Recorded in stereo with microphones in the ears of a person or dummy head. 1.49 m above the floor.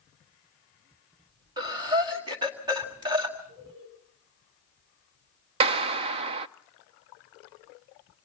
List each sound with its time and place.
1.6 s breathing: 20° right (ahead or behind), 1.5 m
3.5 s laughter: 50° right (ahead or behind), 9 m
5.6 s a clap: 30° right (ahead or behind), 0.5 m